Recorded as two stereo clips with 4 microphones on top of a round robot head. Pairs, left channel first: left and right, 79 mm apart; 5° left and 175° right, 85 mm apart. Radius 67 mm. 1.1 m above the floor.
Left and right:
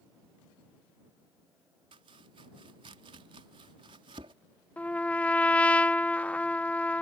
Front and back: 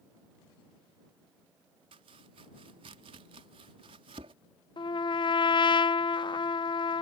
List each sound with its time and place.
1.9 s chopping: 135° right
4.8 s a trumpet: 15° left